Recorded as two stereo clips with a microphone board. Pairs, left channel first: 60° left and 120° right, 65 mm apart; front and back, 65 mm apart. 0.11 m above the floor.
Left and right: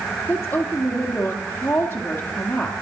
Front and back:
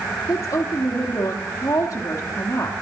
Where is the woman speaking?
Straight ahead, 2.5 m.